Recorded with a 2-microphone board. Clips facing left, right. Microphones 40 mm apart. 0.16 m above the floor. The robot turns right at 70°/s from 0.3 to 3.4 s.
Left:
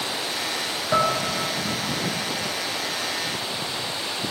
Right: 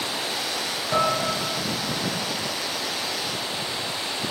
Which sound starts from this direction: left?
Dishes clattering, at 0.9 s.